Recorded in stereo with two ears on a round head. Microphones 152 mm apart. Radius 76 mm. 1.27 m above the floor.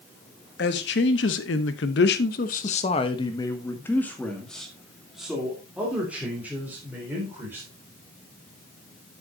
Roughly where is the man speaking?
Left.